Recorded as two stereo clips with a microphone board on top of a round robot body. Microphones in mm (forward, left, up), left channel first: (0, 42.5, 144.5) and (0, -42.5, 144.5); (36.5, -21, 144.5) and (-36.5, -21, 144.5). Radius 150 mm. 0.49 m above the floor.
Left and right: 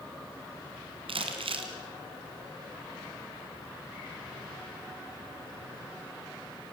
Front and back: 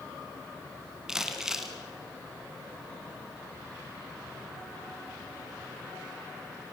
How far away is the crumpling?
About 2.5 m.